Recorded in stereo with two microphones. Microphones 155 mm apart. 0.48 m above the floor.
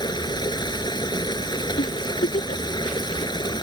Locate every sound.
0.0 s running water: 30° left (ahead or behind)
1.8 s a giggle: 65° left (ahead or behind)